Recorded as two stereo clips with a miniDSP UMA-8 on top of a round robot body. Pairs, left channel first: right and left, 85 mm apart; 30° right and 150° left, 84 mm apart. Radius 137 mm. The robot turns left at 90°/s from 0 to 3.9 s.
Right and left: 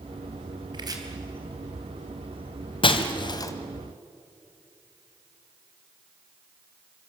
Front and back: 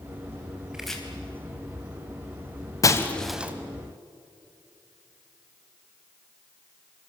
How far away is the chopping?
About 3.5 m.